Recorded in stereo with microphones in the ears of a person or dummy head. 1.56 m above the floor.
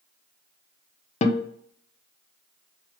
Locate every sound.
1.2 s a guitar: 35° left (ahead or behind), 1.0 m